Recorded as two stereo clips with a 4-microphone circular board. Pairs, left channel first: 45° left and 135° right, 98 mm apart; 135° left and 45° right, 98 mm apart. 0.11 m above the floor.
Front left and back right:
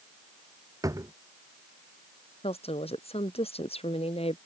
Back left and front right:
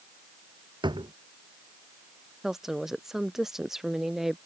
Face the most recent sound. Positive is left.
turn(degrees=40)